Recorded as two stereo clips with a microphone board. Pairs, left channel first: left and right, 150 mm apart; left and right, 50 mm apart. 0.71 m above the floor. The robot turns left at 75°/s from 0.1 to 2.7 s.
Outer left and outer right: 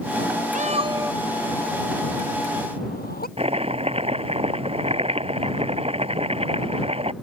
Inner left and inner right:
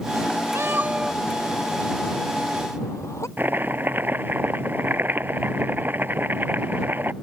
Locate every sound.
0.6 s a cat meowing: 55° right (ahead or behind); by 3.3 s 75° left (ahead or behind)
3.4 s chopping: 40° right (ahead or behind)